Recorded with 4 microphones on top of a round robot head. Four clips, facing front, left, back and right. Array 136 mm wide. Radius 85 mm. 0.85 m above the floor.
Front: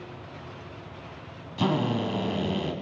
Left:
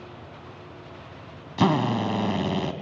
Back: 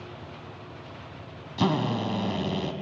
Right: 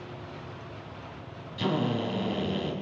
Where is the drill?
95° left, 2.5 m.